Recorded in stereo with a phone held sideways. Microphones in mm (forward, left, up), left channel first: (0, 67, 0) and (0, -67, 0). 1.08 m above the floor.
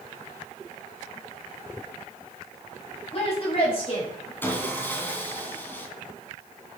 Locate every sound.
3.1 s a woman speaking: 40° left (ahead or behind), 5 m; by 4.3 s 35° left (ahead or behind), 4.5 m
4.4 s sawing: 15° left (ahead or behind), 2 m